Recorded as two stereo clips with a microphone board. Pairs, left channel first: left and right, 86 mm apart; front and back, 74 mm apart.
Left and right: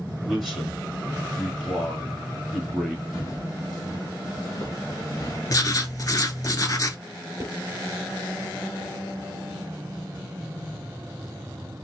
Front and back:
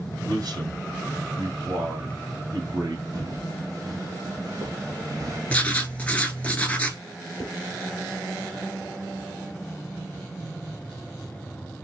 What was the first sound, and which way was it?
A man speaking, 175° left.